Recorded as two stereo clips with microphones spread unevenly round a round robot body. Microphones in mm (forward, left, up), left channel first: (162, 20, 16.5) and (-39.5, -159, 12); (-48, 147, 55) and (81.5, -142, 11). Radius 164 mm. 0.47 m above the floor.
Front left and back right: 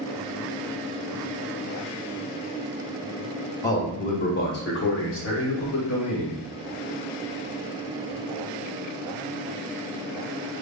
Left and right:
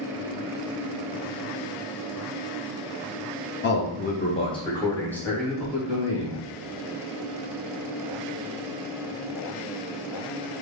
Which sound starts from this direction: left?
A man speaking, at 3.6 s.